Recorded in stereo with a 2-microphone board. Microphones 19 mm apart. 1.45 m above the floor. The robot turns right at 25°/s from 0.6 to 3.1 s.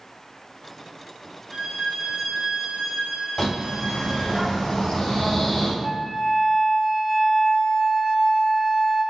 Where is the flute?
60° right (ahead or behind), 1.5 m.